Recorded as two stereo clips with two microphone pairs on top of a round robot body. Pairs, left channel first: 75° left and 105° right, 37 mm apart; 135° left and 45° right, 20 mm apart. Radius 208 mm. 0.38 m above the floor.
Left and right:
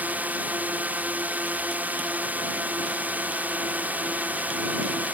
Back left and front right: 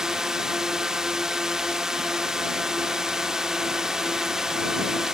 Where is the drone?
90° right.